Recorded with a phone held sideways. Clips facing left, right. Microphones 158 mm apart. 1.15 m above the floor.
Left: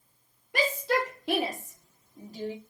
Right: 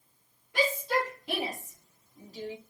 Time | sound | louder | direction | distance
0.5 | a shout | left 1 dB | 75° left (ahead or behind) | 3 m